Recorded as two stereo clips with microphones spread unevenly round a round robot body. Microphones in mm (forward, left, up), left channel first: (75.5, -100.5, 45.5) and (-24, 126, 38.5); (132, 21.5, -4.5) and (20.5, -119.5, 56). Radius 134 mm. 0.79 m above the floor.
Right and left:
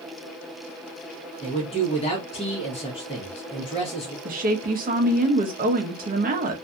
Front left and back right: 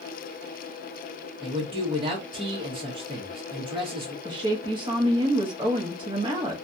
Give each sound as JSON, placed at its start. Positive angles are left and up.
{"t": 1.4, "sound": "a man speaking", "azimuth_deg": -60, "distance_m": 1.1}
{"t": 4.2, "sound": "a woman speaking", "azimuth_deg": 155, "distance_m": 0.7}